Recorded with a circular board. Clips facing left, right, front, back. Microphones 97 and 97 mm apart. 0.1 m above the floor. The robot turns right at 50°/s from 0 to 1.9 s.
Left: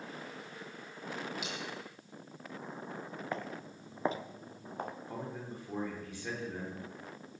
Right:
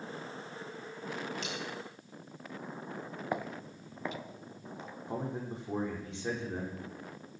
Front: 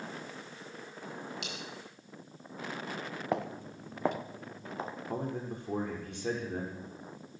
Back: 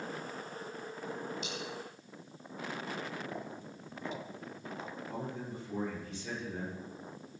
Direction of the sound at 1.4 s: 10° left.